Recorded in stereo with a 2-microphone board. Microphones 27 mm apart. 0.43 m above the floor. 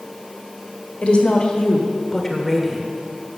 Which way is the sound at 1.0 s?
50° left (ahead or behind).